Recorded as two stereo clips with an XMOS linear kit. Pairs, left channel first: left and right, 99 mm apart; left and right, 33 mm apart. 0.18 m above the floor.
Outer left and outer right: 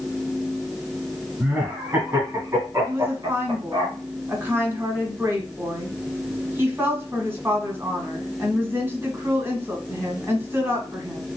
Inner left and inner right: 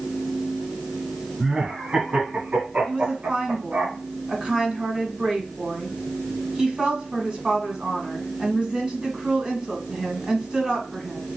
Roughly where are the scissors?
I don't hear scissors.